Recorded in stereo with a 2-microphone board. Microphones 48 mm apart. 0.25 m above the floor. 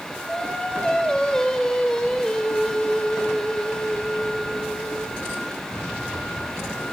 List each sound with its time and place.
0.3 s singing: 15° left (ahead or behind), 4 m